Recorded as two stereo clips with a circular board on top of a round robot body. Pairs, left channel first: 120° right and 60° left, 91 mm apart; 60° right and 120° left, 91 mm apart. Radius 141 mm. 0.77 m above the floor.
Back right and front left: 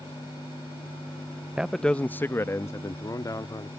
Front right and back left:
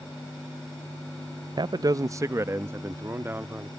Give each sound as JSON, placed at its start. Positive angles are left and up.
{"t": 1.6, "sound": "a man speaking", "azimuth_deg": 140}